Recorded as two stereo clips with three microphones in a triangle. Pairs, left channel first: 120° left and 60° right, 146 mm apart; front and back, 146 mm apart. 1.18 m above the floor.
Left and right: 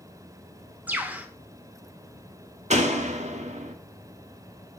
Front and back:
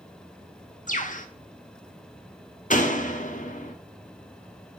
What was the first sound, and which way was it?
A bird, 20° left.